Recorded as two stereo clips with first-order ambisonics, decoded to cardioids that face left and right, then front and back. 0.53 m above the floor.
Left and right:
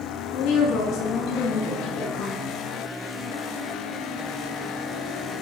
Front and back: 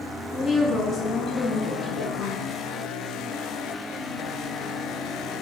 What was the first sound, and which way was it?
A woman speaking, 65° left.